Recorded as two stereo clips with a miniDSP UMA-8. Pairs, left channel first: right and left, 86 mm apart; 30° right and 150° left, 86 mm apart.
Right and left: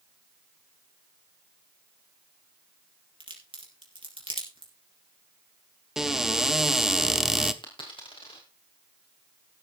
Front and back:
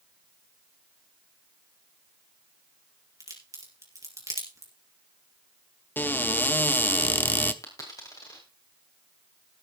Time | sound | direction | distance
3.2 | a crack | 100° left | 4 m
6.0 | a cupboard door | 10° left | 0.8 m
7.6 | a dropped coin | 80° right | 3.5 m